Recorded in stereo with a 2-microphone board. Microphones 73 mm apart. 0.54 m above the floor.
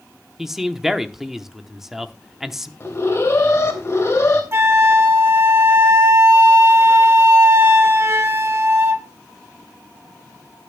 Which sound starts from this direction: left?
An alarm, at 2.8 s.